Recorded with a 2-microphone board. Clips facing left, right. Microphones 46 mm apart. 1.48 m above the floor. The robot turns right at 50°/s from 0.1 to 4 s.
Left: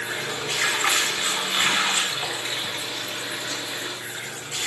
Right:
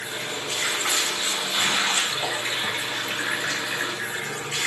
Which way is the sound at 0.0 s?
70° left.